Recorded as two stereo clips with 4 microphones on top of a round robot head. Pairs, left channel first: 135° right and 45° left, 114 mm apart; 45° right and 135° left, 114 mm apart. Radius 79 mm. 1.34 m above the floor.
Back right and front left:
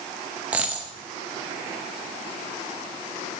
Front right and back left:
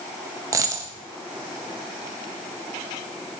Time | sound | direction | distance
0.5 | a dropped coin | 110° left | 0.6 m